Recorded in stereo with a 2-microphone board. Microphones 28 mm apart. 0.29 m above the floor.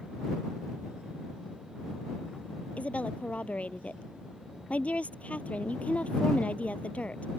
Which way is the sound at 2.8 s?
55° left (ahead or behind).